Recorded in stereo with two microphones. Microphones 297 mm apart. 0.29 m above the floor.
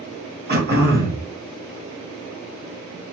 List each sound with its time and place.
0.5 s throat clearing: 35° right (ahead or behind), 1.0 m